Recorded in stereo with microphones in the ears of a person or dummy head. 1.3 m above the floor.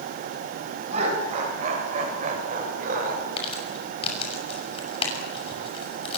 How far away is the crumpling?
About 6.5 m.